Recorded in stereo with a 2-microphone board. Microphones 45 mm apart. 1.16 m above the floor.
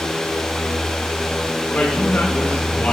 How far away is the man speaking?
About 1.7 m.